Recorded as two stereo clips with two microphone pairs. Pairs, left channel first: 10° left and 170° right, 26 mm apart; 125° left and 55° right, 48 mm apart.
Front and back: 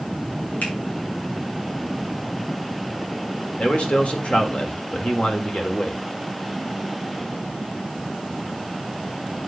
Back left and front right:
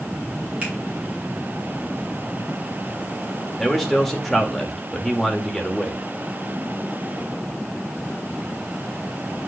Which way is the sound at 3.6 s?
35° left.